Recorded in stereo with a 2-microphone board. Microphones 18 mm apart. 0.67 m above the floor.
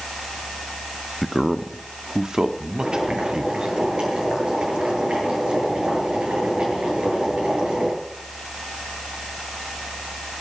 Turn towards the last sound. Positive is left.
turn(degrees=-80)